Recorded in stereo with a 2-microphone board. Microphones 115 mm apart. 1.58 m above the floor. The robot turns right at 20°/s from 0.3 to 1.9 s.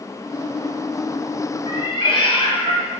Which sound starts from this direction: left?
A cat meowing, at 1.7 s.